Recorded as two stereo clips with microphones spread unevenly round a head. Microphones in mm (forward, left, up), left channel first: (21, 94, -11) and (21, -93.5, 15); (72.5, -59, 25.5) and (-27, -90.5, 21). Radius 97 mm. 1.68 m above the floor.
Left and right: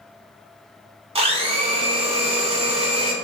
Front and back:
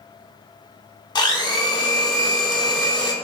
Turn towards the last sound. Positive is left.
turn(degrees=-30)